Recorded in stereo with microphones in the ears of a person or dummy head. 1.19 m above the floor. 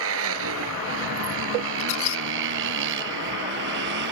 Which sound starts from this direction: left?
A squeak, at 1.8 s.